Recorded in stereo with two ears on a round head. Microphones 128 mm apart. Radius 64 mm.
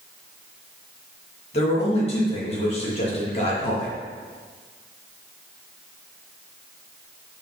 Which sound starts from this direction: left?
A man speaking, at 1.5 s.